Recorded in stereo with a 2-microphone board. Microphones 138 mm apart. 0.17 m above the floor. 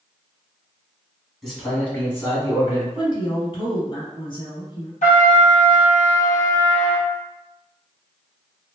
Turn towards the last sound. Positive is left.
turn(degrees=75)  # may be behind; listen again after turning